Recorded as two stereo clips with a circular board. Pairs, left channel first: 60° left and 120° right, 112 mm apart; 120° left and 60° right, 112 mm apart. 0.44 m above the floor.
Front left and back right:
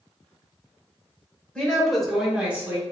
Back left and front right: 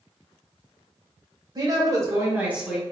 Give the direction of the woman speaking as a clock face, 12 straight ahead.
1 o'clock.